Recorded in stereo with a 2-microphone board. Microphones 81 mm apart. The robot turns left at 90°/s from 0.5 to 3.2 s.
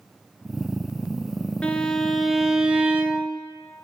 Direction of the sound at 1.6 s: 15° left (ahead or behind).